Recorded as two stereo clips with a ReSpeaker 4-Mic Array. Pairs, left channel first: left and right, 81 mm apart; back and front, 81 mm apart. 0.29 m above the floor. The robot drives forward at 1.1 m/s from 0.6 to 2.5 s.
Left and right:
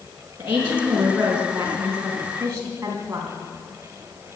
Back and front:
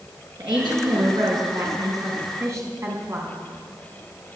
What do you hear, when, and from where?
0.4 s a woman speaking: 25° right, 4.5 m; by 3.3 s 45° right, 3 m